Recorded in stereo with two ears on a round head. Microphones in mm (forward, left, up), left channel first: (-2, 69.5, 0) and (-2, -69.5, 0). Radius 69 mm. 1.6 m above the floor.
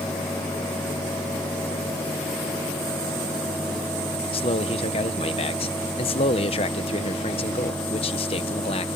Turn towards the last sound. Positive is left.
turn(degrees=35)  # may be behind; listen again after turning